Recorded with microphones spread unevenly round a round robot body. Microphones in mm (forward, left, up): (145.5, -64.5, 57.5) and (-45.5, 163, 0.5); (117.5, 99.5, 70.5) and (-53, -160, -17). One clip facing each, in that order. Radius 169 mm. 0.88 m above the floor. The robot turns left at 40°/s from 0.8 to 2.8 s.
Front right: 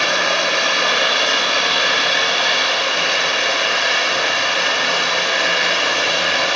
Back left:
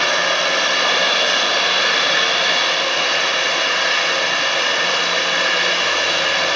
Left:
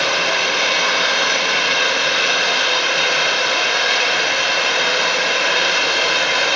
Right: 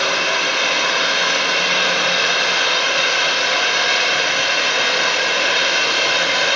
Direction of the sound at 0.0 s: 35° left.